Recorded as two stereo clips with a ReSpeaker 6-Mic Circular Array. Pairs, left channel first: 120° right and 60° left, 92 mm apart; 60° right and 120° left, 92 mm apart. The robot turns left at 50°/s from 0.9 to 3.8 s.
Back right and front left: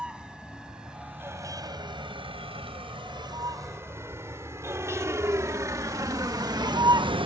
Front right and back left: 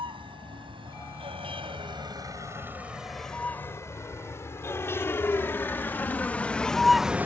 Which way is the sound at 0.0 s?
140° left.